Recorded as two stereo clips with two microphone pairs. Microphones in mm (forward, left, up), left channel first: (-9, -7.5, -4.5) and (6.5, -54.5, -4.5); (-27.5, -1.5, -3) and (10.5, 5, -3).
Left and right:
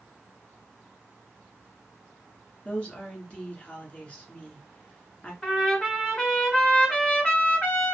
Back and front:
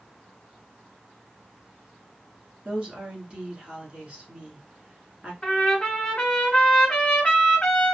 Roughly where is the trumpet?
Behind left.